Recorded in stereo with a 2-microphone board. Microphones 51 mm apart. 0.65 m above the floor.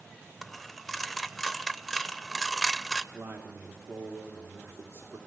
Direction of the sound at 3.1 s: 55° right (ahead or behind).